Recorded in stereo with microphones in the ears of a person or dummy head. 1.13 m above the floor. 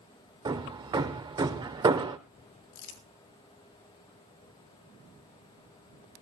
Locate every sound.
0.5 s hammering: 20° right (ahead or behind), 1.1 m
2.7 s crumpling: 55° left (ahead or behind), 3 m